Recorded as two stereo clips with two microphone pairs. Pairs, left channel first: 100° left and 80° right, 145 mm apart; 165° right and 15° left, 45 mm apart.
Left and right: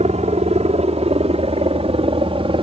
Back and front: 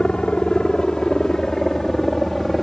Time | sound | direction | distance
0.0 | a helicopter | 100° right | ?